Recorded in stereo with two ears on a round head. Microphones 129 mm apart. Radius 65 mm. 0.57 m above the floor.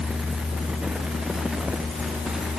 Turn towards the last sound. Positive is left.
No sound to turn to.